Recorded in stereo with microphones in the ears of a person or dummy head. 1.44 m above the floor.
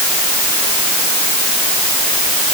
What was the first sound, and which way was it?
Only background noise.